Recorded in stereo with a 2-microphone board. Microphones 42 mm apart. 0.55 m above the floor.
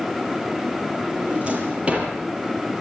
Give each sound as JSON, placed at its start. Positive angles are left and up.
{"t": 1.1, "sound": "a drawer", "side_deg": -30, "distance_m": 5.0}